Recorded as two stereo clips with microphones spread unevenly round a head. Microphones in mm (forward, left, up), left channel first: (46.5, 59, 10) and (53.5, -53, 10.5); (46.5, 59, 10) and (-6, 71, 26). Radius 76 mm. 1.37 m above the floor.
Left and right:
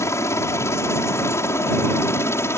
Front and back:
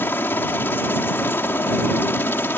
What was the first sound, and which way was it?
A helicopter, 30° left.